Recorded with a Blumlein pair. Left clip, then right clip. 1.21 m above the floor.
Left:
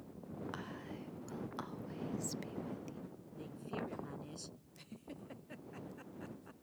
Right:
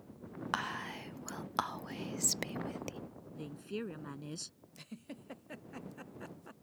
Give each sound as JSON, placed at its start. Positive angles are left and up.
{"t": 0.5, "sound": "whispering", "azimuth_deg": -55}
{"t": 3.3, "sound": "a woman speaking", "azimuth_deg": -70}
{"t": 4.8, "sound": "a giggle", "azimuth_deg": -15}